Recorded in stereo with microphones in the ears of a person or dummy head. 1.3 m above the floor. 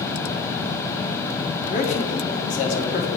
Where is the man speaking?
45° left (ahead or behind), 1.5 m.